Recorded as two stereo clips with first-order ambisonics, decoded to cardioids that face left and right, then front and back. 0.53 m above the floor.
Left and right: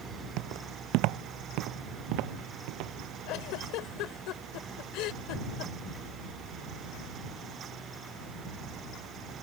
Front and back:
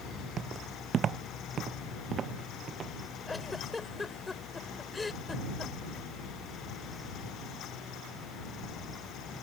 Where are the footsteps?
120° right; by 2.9 s 115° right.